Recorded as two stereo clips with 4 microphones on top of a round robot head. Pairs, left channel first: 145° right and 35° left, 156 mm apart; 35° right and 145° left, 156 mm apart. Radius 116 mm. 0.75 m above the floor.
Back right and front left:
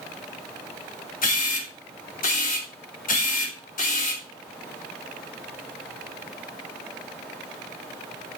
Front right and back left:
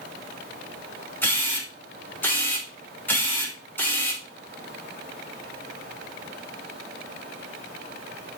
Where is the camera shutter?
115° right, 3.5 m.